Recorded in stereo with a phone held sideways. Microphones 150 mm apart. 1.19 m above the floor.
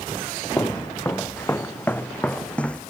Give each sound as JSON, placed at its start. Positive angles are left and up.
{"t": 0.6, "sound": "footsteps", "side_deg": 20}